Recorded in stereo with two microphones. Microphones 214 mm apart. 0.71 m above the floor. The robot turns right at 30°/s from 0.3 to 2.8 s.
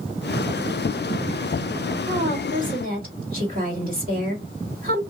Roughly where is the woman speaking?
Right.